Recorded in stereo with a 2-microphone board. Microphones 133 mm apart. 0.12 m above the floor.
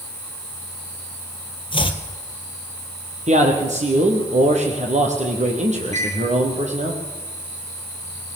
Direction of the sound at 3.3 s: 70° right (ahead or behind).